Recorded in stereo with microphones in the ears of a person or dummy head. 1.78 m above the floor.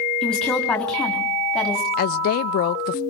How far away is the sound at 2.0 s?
About 0.6 m.